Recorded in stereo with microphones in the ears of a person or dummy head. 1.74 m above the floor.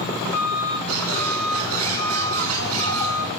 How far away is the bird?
About 8.5 m.